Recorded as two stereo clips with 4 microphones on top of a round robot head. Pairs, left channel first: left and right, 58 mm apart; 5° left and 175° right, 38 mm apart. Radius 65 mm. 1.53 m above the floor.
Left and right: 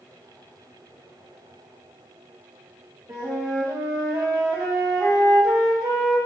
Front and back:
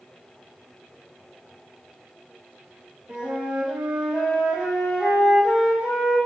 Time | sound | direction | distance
3.1 | a flute | 105° right | 1.0 m